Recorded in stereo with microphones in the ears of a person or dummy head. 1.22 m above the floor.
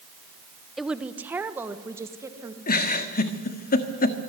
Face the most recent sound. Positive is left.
turn(degrees=45)  # may be behind; listen again after turning